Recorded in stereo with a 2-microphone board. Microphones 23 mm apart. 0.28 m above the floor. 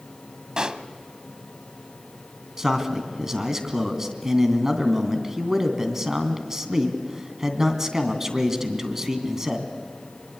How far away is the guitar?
No guitar in this recording.